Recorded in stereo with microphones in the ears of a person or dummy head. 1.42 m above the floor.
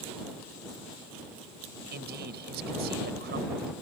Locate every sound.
1.9 s a man speaking: 55° right (ahead or behind)